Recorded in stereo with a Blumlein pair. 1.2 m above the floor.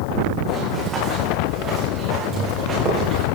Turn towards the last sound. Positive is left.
turn(degrees=-30)